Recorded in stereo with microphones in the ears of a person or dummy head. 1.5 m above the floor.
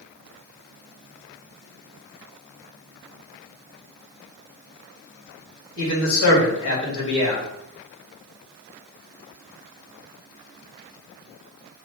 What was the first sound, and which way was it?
A man speaking, 75° left (ahead or behind).